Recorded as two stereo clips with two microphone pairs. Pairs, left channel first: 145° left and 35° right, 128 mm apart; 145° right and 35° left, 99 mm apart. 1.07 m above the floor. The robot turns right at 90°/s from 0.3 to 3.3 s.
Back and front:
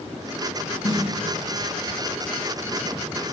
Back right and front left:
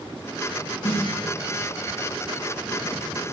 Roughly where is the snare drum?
Behind.